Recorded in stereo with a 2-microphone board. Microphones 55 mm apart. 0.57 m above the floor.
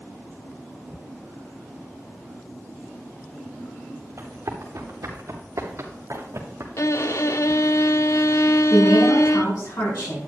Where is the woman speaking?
75° left (ahead or behind), 6 m.